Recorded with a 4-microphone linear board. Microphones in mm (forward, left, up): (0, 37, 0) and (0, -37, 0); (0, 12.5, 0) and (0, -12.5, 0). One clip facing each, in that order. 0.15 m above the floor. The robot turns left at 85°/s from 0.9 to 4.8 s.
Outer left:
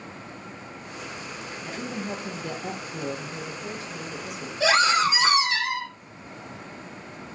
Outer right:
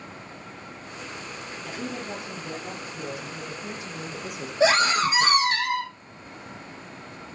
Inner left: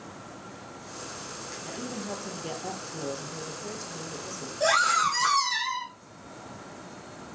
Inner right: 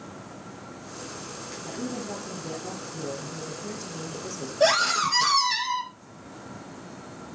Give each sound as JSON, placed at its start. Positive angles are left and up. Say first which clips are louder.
{"t": 1.6, "sound": "a woman speaking", "louder": "outer left 1 dB, inner right 3 dB", "azimuth_deg": 170, "distance_m": 3.5}
{"t": 4.6, "sound": "a scream", "louder": "even, inner right 1 dB", "side_deg": -30, "distance_m": 6.0}